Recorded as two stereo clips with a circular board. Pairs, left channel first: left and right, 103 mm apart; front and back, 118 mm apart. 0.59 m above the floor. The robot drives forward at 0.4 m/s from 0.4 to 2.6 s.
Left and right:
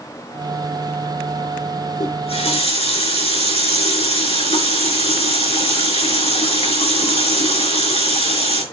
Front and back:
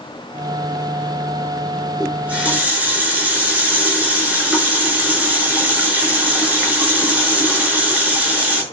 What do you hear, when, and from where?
2.0 s a running tap: 100° left, 5.5 m